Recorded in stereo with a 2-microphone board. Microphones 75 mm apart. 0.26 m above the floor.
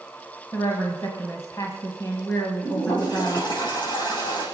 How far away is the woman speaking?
About 1.5 m.